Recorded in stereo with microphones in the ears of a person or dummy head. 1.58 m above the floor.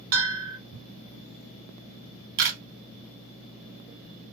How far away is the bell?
About 2.5 m.